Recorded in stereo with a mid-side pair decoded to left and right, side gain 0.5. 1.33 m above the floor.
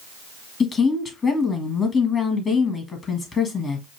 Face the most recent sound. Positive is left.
turn(degrees=40)